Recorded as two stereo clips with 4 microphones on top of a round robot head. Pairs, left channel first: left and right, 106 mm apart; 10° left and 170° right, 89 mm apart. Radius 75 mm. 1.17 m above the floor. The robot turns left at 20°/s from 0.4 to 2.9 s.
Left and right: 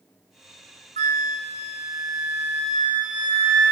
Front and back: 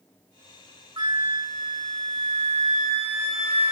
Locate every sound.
1.0 s a flute: 110° right, 1.5 m; by 3.7 s 150° right, 1.5 m